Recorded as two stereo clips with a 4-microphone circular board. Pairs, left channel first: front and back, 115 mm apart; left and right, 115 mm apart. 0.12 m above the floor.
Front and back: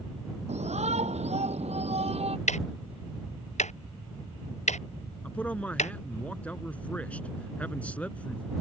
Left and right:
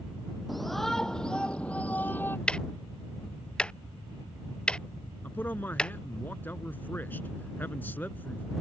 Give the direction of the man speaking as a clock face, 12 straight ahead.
10 o'clock.